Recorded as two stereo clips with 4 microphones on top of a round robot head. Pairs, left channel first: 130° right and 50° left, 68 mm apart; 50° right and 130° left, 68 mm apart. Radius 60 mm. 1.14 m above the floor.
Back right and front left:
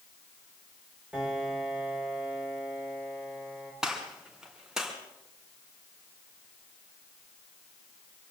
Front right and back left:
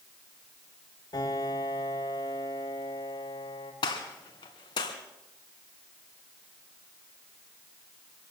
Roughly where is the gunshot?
Ahead right.